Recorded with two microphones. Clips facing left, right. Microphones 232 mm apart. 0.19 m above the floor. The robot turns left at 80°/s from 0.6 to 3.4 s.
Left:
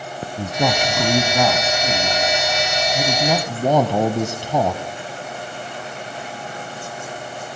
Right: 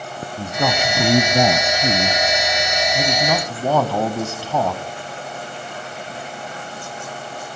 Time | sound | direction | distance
0.4 | a man speaking | 15° left | 1.1 m